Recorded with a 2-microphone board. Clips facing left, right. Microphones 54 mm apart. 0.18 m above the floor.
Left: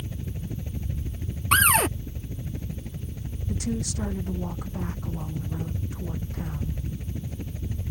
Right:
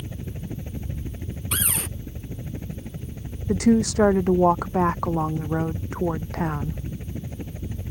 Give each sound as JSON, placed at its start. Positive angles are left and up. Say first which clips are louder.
{"t": 0.0, "sound": "a helicopter", "louder": "right 1 dB", "side_deg": -25}
{"t": 1.5, "sound": "a cupboard door", "louder": "left 12 dB", "side_deg": 60}
{"t": 3.5, "sound": "a woman speaking", "louder": "right 12 dB", "side_deg": -85}